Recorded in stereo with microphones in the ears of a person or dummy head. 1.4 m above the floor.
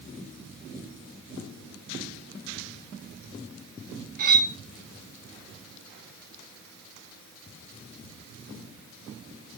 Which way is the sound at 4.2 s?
45° right (ahead or behind).